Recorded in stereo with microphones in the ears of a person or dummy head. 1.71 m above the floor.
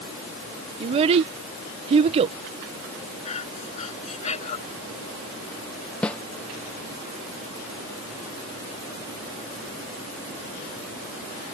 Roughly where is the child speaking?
Right.